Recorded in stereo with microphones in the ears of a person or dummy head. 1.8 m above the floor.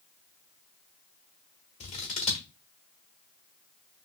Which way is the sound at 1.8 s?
30° left (ahead or behind).